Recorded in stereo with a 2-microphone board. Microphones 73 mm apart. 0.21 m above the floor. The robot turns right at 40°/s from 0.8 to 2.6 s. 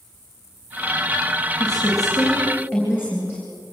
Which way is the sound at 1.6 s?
110° left.